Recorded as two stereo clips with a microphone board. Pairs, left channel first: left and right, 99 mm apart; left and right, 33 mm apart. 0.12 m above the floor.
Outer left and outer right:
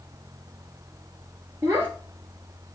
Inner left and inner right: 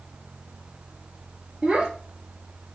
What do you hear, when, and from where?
1.6 s a child speaking: 25° right (ahead or behind), 1.3 m